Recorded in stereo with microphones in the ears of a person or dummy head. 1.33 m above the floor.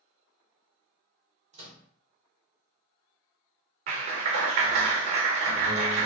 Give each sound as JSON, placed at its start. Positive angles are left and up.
{"t": 1.5, "sound": "a microwave", "side_deg": -35, "distance_m": 0.9}
{"t": 3.9, "sound": "a clap", "side_deg": -45, "distance_m": 0.5}